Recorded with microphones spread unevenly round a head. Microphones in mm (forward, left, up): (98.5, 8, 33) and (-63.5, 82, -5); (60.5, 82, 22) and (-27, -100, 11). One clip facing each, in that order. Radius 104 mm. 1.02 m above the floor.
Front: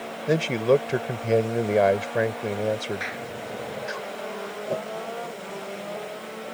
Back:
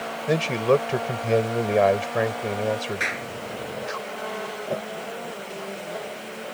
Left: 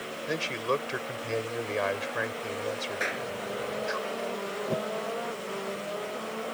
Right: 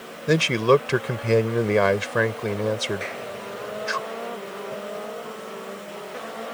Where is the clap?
135° left.